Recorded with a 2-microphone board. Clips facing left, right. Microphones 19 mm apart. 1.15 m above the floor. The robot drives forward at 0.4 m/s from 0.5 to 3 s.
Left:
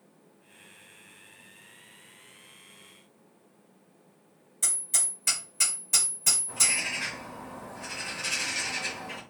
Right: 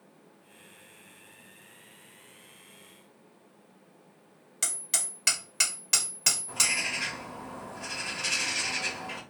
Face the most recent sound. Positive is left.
turn(degrees=-20)  # may be behind; listen again after turning